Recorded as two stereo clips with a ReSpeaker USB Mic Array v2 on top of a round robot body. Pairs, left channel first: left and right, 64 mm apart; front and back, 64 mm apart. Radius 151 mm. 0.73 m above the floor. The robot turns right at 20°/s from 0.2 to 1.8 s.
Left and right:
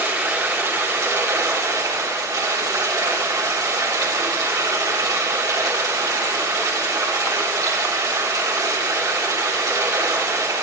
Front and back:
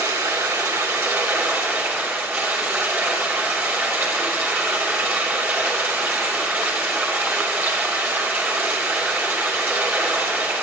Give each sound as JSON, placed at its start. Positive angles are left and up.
{"t": 0.0, "sound": "running water", "azimuth_deg": -155, "distance_m": 3.0}